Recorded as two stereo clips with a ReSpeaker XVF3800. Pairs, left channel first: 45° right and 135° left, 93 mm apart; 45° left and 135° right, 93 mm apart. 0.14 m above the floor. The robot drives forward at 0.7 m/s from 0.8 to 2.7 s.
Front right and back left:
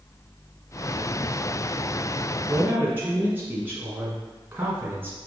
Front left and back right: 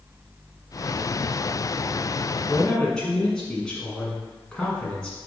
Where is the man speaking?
105° left, 1.7 m; by 5.2 s 120° left, 1.7 m.